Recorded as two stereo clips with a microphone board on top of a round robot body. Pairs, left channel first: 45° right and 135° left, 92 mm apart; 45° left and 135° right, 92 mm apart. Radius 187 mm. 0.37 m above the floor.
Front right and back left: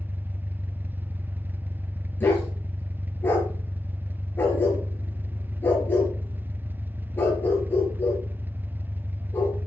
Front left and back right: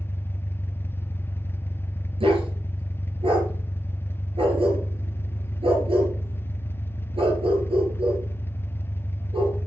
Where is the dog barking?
115° right, 4 m.